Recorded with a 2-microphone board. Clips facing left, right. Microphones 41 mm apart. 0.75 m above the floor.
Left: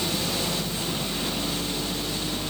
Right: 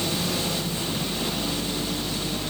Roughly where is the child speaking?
I don't hear a child speaking.